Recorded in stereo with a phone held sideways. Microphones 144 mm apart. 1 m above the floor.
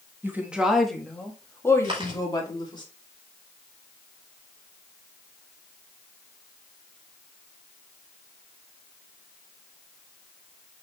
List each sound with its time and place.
0.2 s a woman speaking: 15° right (ahead or behind), 1.6 m; by 2.8 s 35° left (ahead or behind), 3 m
1.8 s chewing: 40° right (ahead or behind), 5 m